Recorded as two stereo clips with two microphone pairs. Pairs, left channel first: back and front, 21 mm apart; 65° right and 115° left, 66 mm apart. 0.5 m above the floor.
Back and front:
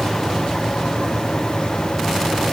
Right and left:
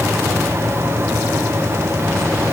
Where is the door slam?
No door slam in this recording.